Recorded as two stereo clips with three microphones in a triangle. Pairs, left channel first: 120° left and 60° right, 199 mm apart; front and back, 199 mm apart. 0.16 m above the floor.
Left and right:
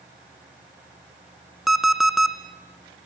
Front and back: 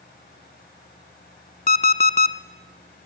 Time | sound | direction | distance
1.7 | an alarm clock | 30° left | 0.8 m